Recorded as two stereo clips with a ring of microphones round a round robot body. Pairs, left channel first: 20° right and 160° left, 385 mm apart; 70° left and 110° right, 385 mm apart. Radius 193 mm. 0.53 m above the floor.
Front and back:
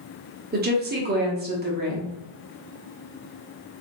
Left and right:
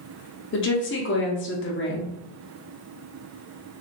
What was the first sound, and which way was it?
A woman speaking, 105° left.